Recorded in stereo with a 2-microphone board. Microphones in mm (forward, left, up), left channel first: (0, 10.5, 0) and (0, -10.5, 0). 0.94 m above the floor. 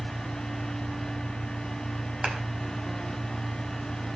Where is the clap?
80° right, 5.5 m.